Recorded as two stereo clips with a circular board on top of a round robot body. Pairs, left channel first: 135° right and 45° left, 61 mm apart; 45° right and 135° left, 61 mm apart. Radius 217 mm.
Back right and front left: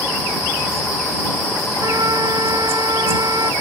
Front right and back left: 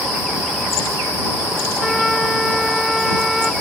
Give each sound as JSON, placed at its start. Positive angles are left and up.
{"t": 1.8, "sound": "a flute", "azimuth_deg": 45}